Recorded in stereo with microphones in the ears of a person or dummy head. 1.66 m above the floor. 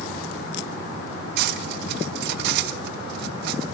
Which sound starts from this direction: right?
Cutlery clinking, at 1.4 s.